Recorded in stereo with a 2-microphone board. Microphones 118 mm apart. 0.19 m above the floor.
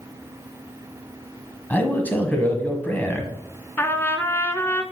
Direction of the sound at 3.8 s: 15° left (ahead or behind).